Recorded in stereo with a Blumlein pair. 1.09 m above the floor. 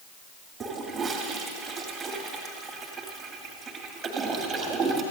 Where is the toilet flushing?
15° right, 2.5 m.